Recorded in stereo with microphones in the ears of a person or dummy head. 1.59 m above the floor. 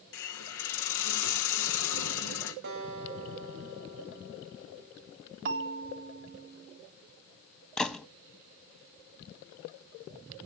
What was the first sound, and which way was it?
A hiss, 75° left (ahead or behind).